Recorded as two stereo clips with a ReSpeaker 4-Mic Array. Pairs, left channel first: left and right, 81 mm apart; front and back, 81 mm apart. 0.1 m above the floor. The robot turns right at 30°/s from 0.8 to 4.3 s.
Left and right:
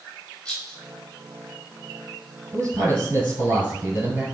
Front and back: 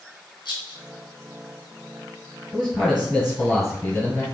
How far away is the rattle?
About 1.1 m.